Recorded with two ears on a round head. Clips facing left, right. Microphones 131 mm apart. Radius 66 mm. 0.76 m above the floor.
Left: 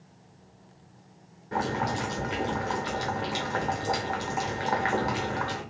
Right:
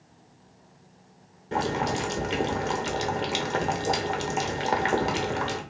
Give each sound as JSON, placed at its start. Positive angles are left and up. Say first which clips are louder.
{"t": 1.5, "sound": "boiling", "louder": "right 2 dB", "side_deg": -30, "distance_m": 2.5}